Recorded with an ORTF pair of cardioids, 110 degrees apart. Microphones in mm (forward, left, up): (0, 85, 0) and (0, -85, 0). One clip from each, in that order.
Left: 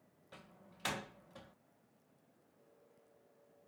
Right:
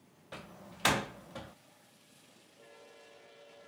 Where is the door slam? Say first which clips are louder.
Right 11 dB; 55° right.